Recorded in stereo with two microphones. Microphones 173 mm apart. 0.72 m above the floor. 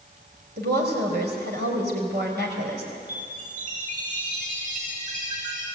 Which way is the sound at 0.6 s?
80° right.